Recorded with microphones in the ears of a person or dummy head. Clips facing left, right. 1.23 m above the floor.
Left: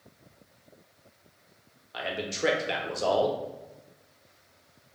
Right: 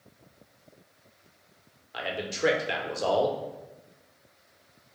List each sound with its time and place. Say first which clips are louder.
1.9 s a man speaking: even; centre (ahead or behind), 0.8 m